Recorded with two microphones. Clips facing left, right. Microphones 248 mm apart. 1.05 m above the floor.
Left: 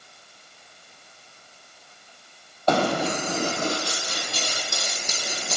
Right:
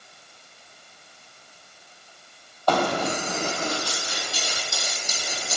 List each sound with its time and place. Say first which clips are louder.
2.7 s running footsteps: left 1 dB; 25° left (ahead or behind), 1.4 m; by 5.6 s 60° left (ahead or behind), 2 m